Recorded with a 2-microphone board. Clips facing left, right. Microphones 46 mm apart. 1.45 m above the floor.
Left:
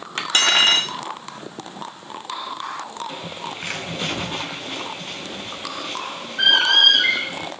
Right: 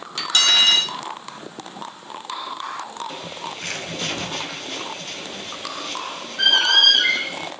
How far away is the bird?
About 3 m.